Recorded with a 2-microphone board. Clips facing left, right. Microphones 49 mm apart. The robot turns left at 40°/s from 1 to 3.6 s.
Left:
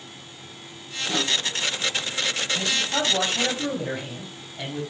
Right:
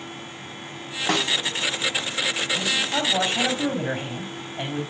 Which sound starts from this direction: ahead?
A man speaking, at 2.5 s.